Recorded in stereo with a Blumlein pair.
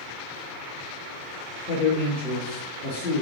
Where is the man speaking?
35° left, 2.5 m.